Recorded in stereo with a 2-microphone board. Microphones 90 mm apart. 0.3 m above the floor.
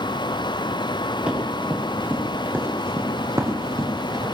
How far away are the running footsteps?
About 5 m.